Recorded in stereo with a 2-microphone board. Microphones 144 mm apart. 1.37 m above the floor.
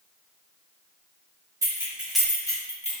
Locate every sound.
1.6 s keys jangling: 20° right (ahead or behind), 1.7 m; by 2.9 s 50° left (ahead or behind), 1.3 m